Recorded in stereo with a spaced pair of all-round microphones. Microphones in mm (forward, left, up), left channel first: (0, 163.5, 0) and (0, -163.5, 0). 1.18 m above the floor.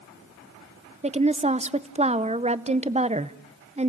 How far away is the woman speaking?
About 0.7 m.